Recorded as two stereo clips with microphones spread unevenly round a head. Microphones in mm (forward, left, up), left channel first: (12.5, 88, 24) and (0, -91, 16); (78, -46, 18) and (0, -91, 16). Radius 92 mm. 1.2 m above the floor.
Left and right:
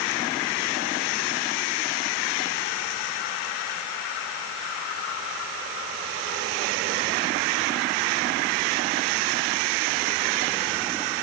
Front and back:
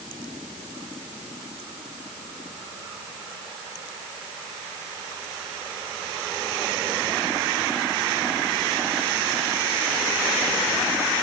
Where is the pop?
No pop in this recording.